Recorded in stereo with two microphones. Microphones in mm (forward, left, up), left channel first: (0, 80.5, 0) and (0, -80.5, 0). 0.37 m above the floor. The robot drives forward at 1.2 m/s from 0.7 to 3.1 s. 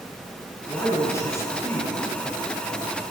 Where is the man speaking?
20° left (ahead or behind), 4.5 m; by 1.9 s 15° left (ahead or behind), 6 m.